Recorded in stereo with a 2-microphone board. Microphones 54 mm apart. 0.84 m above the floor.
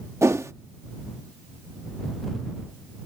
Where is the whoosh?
65° right (ahead or behind).